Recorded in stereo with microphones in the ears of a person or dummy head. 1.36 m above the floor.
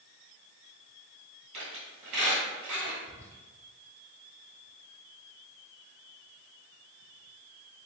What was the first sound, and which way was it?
A squeak, 30° right (ahead or behind).